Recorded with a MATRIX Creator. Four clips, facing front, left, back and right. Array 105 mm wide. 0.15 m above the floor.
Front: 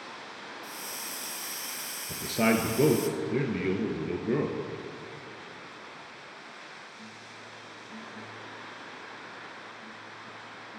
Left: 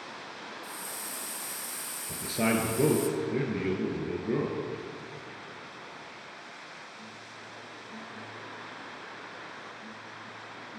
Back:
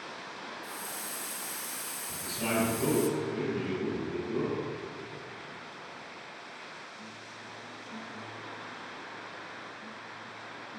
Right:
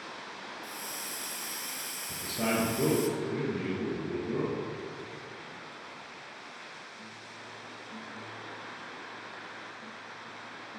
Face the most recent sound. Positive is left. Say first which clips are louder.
# left 3 dB, front 7 dB
turn(degrees=20)